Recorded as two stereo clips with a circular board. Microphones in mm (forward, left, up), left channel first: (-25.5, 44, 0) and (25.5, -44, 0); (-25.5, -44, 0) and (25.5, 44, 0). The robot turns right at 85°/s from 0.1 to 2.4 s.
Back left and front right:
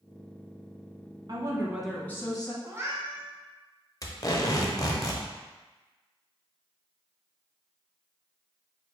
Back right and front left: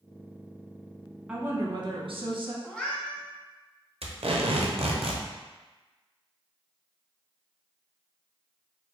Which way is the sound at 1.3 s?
20° right.